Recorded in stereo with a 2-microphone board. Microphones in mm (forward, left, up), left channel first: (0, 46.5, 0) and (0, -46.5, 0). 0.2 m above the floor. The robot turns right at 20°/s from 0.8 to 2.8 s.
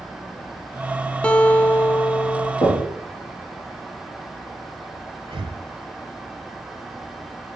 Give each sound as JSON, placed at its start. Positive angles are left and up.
{"t": 1.2, "sound": "a guitar", "side_deg": 10, "distance_m": 0.5}
{"t": 2.6, "sound": "knocking", "side_deg": 45, "distance_m": 3.5}
{"t": 5.2, "sound": "breathing", "side_deg": -65, "distance_m": 0.6}